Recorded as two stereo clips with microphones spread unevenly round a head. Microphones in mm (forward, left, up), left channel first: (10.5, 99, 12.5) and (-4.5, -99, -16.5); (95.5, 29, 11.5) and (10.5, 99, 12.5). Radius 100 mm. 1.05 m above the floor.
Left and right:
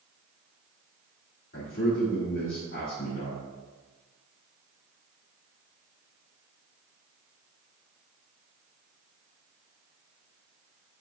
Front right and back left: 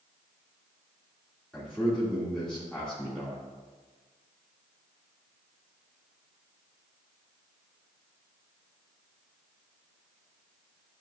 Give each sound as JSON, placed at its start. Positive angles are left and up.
{"t": 1.5, "sound": "a man speaking", "azimuth_deg": 45, "distance_m": 2.0}